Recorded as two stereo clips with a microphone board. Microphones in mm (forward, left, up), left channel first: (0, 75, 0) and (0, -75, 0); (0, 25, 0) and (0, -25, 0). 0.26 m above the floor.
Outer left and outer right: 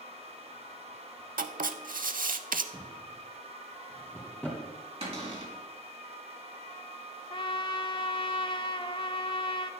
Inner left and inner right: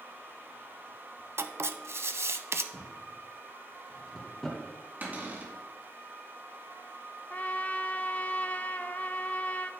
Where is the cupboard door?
40° right (ahead or behind), 2.5 m.